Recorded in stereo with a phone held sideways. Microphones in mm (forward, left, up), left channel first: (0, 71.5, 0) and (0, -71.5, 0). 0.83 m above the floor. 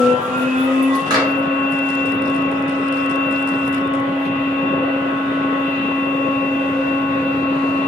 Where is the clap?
30° right (ahead or behind), 1.9 m.